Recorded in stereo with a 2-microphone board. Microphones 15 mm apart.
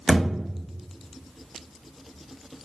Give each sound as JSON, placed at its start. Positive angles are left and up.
{"t": 0.1, "sound": "a thud", "side_deg": 40, "distance_m": 1.0}